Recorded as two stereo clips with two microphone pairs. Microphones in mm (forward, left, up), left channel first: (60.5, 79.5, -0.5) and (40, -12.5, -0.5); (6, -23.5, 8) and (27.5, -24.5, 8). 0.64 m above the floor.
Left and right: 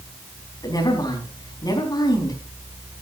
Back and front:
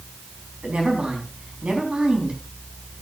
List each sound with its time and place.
0.6 s a woman speaking: 30° left, 4.5 m